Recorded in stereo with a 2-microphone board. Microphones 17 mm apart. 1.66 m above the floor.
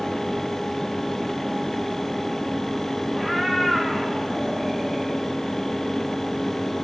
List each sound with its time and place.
3.1 s a cat meowing: 5° right (ahead or behind), 3 m